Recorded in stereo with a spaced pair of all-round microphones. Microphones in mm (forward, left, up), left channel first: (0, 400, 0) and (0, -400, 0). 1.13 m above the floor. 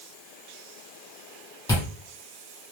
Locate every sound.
1.7 s chewing: 5° left (ahead or behind), 2.5 m